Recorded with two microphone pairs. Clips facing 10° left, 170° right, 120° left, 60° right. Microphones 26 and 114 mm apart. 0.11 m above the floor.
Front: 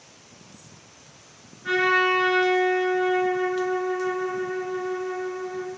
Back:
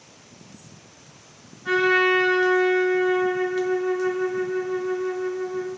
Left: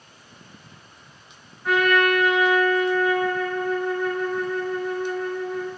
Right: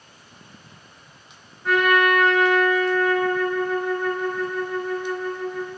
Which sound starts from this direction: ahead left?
A trumpet, at 1.6 s.